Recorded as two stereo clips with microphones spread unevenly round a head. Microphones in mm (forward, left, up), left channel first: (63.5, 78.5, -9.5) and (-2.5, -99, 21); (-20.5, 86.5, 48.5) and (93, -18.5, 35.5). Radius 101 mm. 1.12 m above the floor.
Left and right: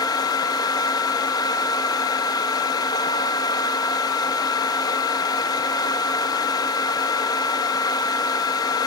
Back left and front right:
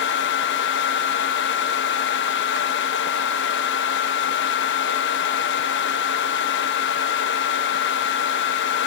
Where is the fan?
140° left, 1.1 m.